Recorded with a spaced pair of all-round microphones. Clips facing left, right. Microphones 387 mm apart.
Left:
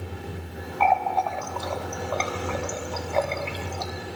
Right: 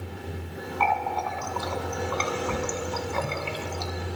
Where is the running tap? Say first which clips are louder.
Left 5 dB; 20° right (ahead or behind), 0.7 m.